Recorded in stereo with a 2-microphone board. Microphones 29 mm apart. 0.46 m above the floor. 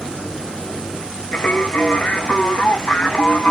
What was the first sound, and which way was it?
Singing, 70° left (ahead or behind).